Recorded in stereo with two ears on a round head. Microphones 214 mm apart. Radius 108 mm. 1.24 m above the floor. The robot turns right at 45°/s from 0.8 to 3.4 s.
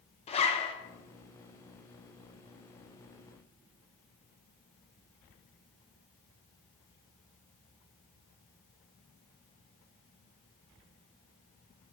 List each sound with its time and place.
0.3 s a zipper: 25° left (ahead or behind), 1.0 m